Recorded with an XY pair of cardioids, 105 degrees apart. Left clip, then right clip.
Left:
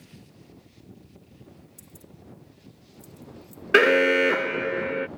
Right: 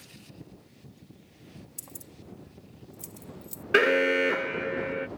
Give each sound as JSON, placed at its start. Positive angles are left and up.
{"t": 1.8, "sound": "keys jangling", "azimuth_deg": -65}
{"t": 3.7, "sound": "an alarm", "azimuth_deg": 30}